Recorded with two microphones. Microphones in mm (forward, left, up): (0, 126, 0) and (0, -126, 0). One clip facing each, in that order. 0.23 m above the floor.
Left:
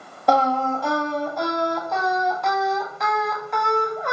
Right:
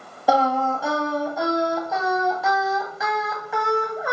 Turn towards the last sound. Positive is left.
turn(degrees=-5)  # may be behind; listen again after turning